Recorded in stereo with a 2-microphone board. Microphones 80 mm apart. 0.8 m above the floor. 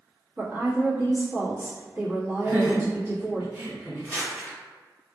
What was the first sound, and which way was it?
A woman speaking, 30° right (ahead or behind).